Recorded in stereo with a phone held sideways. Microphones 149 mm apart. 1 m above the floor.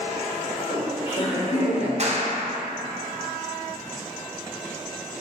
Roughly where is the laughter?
Left.